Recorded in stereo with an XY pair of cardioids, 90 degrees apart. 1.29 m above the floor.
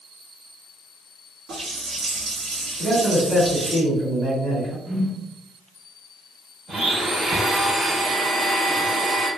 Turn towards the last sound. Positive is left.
turn(degrees=-35)